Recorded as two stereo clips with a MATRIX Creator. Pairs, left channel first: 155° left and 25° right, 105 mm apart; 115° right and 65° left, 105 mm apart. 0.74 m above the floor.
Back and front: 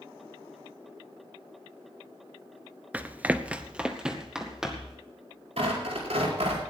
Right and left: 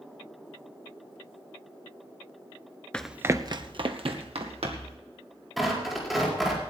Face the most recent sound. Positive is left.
turn(degrees=-20)